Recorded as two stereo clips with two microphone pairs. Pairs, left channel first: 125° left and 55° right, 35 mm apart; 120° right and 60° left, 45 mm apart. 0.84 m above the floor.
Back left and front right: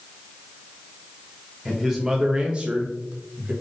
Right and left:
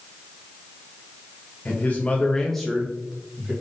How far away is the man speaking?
About 0.7 m.